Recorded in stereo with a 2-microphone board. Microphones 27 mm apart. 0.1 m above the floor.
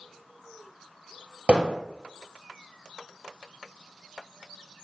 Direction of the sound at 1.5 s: 45° right (ahead or behind).